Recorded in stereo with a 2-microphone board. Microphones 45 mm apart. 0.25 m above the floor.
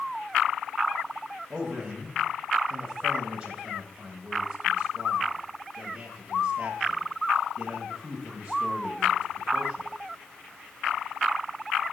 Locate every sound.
1.5 s a man speaking: 20° right (ahead or behind), 1.3 m